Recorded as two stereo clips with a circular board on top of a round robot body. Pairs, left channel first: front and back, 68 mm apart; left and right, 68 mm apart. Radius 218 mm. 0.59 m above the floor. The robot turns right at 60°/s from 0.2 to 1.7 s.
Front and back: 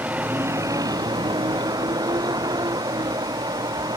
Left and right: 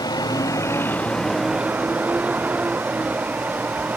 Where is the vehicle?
110° left; by 4.0 s 160° right.